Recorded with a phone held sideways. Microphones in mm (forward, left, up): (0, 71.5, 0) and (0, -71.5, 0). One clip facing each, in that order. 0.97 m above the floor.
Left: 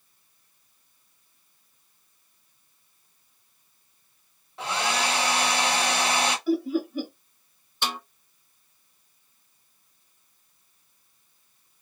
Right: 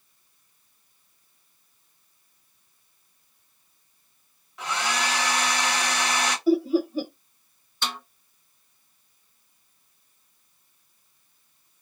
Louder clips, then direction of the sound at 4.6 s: Left 1 dB; 30° left (ahead or behind).